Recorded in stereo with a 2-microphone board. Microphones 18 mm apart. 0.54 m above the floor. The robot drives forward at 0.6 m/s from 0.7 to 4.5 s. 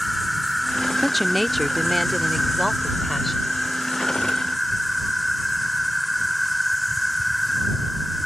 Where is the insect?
5° left (ahead or behind); by 8.3 s centre (ahead or behind).